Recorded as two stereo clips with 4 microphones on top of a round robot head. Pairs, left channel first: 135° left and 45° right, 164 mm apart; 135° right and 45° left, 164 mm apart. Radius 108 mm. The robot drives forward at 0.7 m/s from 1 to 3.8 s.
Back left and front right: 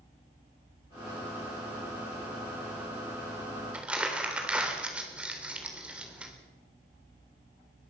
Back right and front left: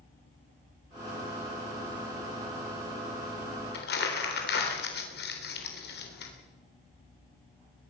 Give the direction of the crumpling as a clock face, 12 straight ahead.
4 o'clock.